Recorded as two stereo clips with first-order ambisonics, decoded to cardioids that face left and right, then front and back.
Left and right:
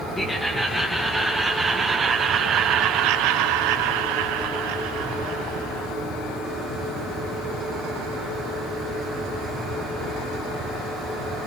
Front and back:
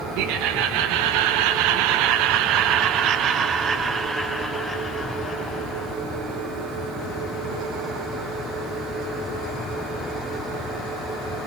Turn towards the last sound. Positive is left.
turn(degrees=-65)